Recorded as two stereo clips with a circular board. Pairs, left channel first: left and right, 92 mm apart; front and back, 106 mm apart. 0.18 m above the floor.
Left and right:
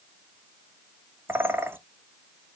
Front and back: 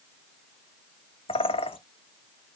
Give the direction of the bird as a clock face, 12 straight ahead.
1 o'clock.